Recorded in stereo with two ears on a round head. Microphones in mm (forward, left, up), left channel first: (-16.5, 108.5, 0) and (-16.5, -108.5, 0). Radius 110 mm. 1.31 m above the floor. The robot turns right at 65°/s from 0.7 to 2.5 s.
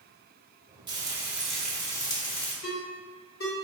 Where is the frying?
20° right (ahead or behind), 1.0 m; by 2.5 s 25° left (ahead or behind), 1.0 m.